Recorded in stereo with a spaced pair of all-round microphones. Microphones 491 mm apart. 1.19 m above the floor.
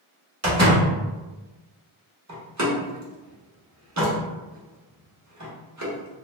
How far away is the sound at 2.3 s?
About 0.8 m.